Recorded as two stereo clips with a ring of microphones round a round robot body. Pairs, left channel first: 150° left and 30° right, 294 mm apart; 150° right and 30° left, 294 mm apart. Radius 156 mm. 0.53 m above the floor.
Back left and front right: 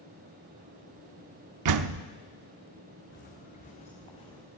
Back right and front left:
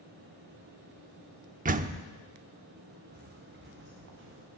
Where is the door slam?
30° right, 0.7 m.